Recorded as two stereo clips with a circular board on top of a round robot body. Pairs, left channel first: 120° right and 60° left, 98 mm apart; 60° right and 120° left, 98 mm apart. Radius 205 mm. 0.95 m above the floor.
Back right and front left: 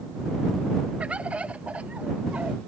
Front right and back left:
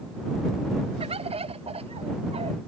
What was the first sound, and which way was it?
A bird, 140° left.